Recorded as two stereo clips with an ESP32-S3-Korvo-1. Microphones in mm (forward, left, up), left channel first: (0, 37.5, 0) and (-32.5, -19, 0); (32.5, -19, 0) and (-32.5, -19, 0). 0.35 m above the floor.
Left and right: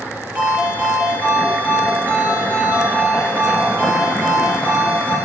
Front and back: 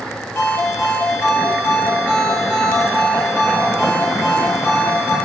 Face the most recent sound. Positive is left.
turn(degrees=-50)